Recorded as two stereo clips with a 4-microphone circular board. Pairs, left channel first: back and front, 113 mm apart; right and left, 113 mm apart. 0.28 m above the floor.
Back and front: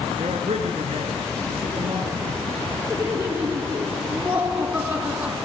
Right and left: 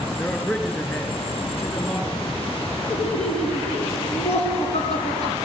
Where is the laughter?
75° right, 3.5 m.